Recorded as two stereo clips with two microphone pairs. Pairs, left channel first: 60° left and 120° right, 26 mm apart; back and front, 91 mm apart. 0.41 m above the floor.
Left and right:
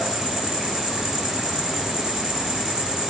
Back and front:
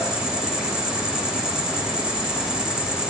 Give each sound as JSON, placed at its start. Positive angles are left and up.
{"t": 0.0, "sound": "an insect", "azimuth_deg": -80, "distance_m": 2.5}